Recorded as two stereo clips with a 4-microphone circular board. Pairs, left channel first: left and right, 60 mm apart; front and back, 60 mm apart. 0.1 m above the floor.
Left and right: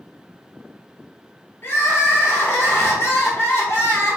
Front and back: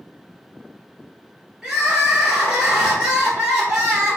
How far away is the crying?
About 1.2 m.